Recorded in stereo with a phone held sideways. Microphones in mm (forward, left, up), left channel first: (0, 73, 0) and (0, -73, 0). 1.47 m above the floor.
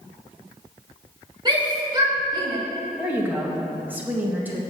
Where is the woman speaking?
10° right (ahead or behind), 1.6 m.